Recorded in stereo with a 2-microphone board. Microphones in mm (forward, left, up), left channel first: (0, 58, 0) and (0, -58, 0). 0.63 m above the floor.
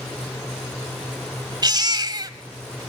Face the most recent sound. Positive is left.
turn(degrees=-35)  # may be behind; listen again after turning